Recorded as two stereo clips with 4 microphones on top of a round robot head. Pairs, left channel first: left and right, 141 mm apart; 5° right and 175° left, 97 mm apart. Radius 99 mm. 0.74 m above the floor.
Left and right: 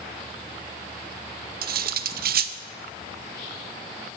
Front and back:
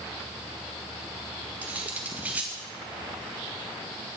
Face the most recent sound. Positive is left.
turn(degrees=-105)